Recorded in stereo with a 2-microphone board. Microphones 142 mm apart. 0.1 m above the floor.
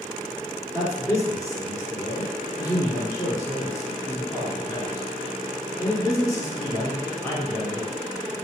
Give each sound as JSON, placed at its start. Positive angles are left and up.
{"t": 0.7, "sound": "a man speaking", "side_deg": 25, "distance_m": 1.2}